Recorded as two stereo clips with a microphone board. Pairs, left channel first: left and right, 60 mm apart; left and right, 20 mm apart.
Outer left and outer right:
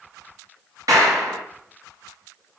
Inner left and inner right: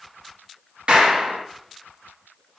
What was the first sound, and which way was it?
A clap, 60° right (ahead or behind).